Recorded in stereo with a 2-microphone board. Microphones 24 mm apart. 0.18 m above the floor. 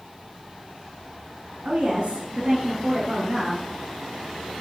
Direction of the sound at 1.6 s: 50° right (ahead or behind).